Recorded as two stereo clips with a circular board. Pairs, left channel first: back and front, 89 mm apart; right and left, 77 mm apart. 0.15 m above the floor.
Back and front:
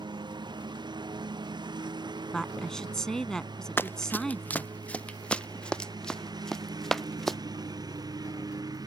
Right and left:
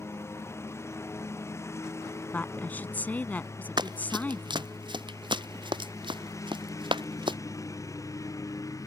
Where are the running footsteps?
115° left; by 7.4 s 90° left.